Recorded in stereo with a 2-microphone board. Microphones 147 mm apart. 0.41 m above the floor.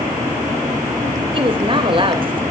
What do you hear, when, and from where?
1.3 s a woman speaking: 35° right (ahead or behind), 2 m